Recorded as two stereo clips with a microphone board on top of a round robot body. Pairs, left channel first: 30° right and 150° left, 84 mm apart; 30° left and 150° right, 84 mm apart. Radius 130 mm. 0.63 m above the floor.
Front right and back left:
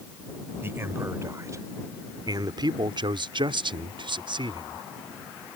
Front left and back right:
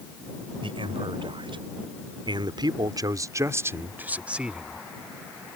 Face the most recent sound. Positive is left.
turn(degrees=125)